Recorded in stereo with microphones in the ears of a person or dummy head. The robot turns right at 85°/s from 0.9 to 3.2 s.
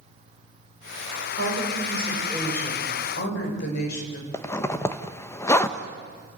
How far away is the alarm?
No alarm in this recording.